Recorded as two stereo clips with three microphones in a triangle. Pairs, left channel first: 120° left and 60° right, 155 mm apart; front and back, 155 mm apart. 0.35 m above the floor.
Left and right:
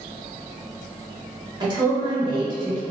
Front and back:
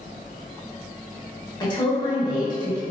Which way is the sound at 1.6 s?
30° right.